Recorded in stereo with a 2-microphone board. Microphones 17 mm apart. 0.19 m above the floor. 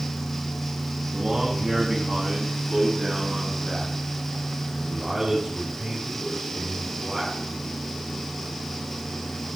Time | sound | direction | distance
1.1 | a man speaking | 40° right (ahead or behind) | 1.9 m